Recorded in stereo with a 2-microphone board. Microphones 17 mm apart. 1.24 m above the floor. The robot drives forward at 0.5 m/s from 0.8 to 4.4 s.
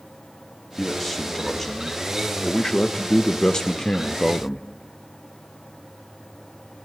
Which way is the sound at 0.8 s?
15° left (ahead or behind).